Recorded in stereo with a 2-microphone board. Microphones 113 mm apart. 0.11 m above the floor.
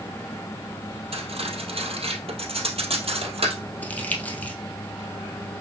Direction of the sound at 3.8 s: 15° left (ahead or behind).